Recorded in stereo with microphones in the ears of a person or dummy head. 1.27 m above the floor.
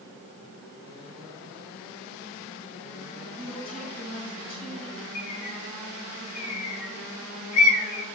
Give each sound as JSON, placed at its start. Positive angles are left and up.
{"t": 3.4, "sound": "a woman speaking", "side_deg": 15, "distance_m": 4.0}
{"t": 5.2, "sound": "a bird", "side_deg": 70, "distance_m": 1.3}